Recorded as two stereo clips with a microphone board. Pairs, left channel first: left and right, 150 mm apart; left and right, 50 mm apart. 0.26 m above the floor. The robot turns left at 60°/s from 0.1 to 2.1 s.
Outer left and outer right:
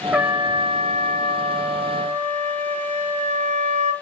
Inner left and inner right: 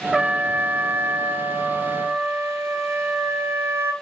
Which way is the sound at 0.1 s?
10° right.